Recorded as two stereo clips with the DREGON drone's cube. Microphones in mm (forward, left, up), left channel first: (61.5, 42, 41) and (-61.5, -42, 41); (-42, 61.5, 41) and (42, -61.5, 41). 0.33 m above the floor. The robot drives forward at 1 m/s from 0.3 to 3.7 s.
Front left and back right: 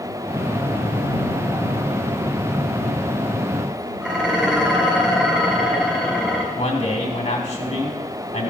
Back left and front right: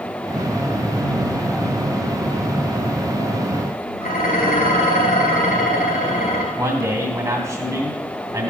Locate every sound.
4.0 s dishes clattering: 130° left, 3.5 m
6.5 s a man speaking: 5° left, 2.5 m